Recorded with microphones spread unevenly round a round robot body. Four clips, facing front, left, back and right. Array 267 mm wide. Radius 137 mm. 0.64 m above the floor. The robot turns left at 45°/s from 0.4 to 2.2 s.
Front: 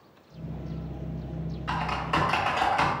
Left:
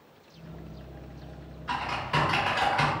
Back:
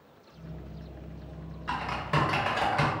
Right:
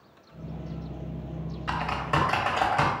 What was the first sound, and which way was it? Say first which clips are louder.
Typing on a keyboard: right 2 dB, front 2 dB; 105° right.